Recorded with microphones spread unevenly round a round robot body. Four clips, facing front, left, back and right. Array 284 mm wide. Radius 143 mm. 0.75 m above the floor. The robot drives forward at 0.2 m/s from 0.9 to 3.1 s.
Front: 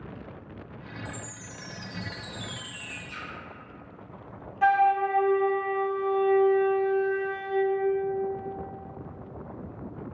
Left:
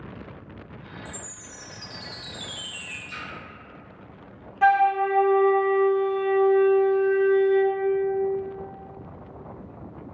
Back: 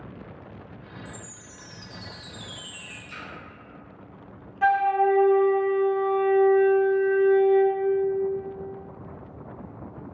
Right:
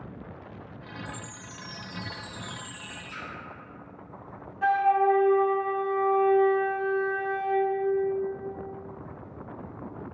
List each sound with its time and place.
1.1 s a chime: 100° left, 1.4 m; by 3.0 s 120° left, 1.5 m
3.1 s a splash: 170° left, 1.7 m
4.6 s a flute: 115° left, 0.6 m